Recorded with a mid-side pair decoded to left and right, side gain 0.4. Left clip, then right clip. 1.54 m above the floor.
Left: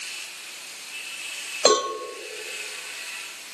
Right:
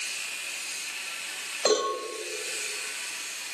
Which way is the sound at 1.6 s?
65° left.